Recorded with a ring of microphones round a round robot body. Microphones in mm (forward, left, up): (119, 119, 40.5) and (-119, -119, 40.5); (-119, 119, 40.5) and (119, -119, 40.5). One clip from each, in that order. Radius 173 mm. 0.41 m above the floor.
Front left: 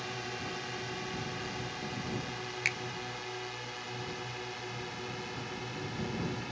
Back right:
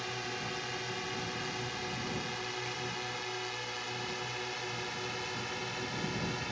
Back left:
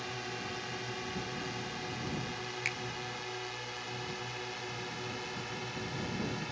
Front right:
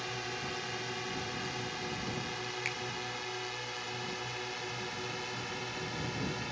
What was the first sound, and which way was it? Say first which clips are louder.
A drone: back right 1 dB, front right 2 dB; 95° right.